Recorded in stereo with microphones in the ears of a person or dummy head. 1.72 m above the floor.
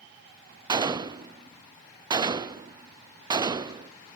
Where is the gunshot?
20° right (ahead or behind), 0.6 m.